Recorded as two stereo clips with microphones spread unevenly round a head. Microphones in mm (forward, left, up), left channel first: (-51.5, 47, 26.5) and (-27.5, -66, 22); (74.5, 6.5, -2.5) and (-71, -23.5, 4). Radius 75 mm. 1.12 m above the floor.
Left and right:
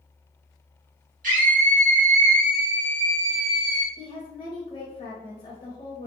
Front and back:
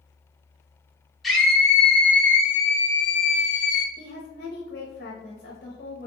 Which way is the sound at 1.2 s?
80° right.